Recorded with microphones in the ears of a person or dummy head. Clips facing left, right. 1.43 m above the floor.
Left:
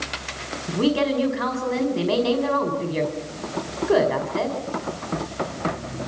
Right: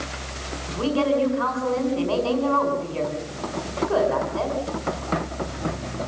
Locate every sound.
0.7 s a woman speaking: 40° left (ahead or behind), 5 m